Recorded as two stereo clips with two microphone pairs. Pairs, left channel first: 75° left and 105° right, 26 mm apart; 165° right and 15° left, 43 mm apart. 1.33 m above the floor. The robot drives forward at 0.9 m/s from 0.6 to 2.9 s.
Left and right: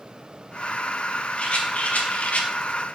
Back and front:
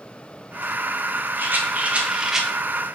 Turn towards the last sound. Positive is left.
turn(degrees=125)